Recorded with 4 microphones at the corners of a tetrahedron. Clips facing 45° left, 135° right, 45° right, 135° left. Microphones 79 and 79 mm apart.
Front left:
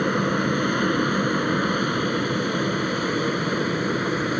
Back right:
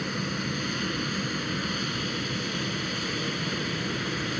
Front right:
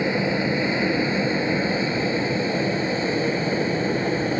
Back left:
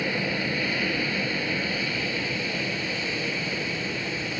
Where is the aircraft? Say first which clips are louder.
Front left 10 dB, front right 6 dB; 20° left; by 4.4 s straight ahead.